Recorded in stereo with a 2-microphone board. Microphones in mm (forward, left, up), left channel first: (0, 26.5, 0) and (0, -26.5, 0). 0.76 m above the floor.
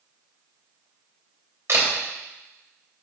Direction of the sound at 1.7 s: 55° right (ahead or behind).